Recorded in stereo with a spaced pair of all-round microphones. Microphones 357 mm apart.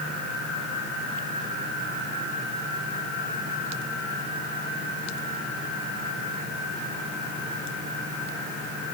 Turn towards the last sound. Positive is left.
No sound to turn to.